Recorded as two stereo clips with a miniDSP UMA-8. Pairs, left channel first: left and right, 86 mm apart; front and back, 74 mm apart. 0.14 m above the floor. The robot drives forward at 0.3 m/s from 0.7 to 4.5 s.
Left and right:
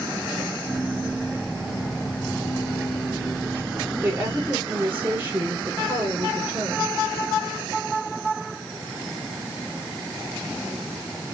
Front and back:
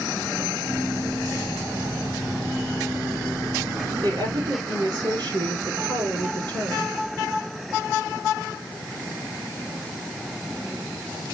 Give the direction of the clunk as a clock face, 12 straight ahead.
I don't hear a clunk.